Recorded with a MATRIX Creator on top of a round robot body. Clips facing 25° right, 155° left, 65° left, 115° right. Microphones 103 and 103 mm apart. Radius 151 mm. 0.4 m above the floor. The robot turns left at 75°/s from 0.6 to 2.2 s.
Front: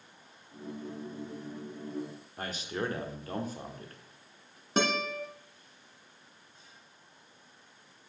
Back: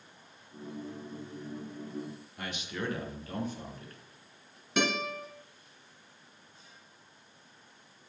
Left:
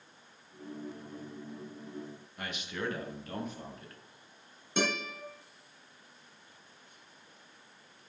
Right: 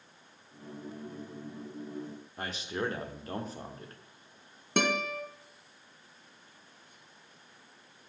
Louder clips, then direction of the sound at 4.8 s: Front 1 dB, right 3 dB; 80° right.